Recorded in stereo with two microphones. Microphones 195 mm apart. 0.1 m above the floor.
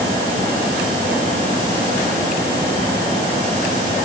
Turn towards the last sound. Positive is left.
No sound to turn to.